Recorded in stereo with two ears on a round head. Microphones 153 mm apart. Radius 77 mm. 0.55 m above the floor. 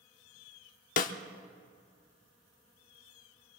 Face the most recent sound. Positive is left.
turn(degrees=50)  # may be behind; listen again after turning